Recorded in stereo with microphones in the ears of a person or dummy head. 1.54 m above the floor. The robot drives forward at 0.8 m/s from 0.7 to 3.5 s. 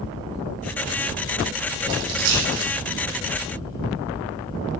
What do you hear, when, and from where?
1.9 s a dropped coin: 75° right (ahead or behind), 8.5 m